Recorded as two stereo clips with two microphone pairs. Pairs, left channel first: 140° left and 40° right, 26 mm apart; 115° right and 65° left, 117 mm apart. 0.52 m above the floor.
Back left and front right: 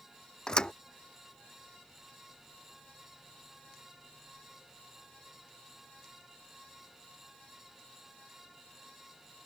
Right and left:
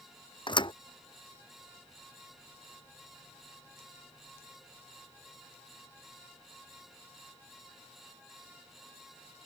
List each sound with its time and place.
0.5 s a thud: 165° right